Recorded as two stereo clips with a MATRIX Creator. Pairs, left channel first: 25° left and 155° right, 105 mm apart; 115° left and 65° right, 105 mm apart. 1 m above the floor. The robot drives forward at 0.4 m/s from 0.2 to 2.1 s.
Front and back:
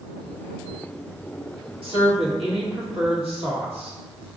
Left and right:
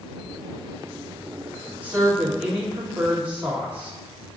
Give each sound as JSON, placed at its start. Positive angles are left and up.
{"t": 1.8, "sound": "a woman speaking", "azimuth_deg": -145, "distance_m": 1.4}